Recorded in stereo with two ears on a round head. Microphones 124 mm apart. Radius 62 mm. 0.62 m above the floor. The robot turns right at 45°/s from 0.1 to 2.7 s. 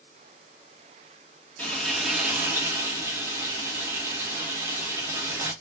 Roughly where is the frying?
Behind.